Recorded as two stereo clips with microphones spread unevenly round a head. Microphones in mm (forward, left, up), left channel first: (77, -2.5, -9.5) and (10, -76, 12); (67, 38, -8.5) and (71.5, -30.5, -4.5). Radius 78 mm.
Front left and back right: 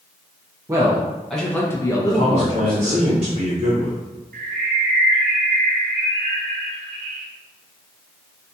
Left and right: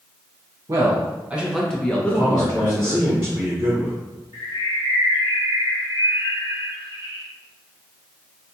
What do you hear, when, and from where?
0.7 s a man speaking: 70° right, 0.6 m; by 3.1 s 55° left, 1.1 m
2.1 s a man speaking: 140° right, 0.9 m
4.3 s a bird: 160° right, 0.6 m